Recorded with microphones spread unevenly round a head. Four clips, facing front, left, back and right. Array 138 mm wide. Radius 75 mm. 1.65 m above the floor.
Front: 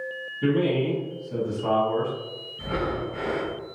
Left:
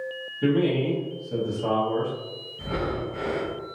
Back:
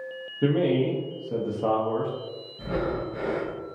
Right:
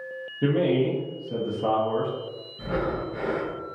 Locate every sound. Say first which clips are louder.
0.4 s a man speaking: even, even; 170° right, 0.6 m
2.6 s breathing: right 1 dB, even; 35° right, 1.7 m